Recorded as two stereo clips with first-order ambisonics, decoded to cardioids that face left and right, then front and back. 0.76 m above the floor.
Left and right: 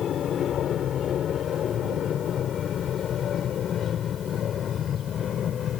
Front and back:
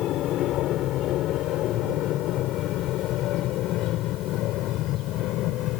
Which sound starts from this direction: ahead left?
An aircraft, at 0.0 s.